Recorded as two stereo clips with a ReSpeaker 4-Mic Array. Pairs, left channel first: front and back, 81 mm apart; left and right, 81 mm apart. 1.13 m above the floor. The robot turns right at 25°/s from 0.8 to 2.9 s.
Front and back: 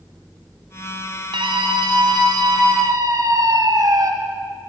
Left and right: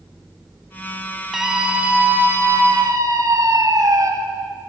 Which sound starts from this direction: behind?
A scream, at 1.3 s.